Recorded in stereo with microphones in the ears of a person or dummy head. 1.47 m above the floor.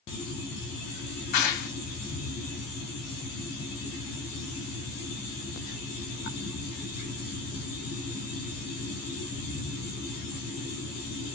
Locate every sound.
1.3 s a clap: 50° left (ahead or behind), 2.5 m